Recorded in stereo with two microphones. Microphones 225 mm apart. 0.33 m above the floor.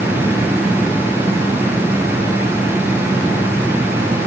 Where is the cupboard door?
I don't hear a cupboard door.